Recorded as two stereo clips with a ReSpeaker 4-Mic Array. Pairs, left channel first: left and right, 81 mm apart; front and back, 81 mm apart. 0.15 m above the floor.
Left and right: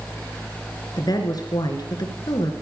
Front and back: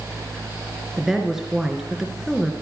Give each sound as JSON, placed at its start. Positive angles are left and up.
{"t": 1.0, "sound": "a woman speaking", "azimuth_deg": 95, "distance_m": 2.5}